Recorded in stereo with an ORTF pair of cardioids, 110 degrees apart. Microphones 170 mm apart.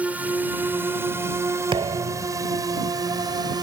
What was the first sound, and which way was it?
A drone, 10° right.